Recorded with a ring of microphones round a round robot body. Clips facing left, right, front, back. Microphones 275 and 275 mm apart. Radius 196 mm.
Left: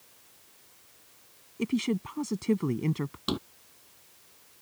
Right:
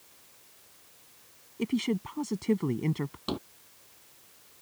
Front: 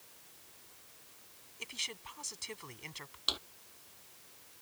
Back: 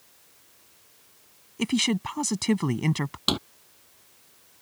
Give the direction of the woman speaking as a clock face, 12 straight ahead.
6 o'clock.